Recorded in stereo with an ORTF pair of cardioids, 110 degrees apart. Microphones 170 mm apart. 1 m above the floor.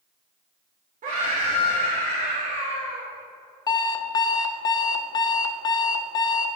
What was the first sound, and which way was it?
A scream, 50° right.